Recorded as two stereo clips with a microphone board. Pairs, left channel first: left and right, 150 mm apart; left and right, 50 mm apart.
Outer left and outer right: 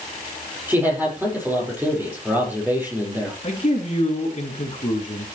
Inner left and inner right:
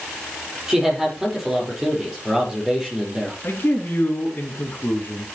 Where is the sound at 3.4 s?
40° left (ahead or behind), 2.5 m.